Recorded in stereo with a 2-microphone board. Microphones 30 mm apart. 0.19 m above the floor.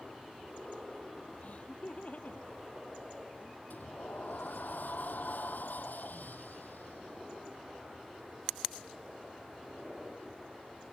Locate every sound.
1.4 s laughter: 50° left (ahead or behind)
3.7 s a sliding door: 80° left